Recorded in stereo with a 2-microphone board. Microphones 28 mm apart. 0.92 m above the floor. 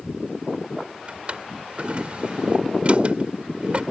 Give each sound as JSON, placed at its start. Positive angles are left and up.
{"t": 1.1, "sound": "a drawer", "side_deg": -40}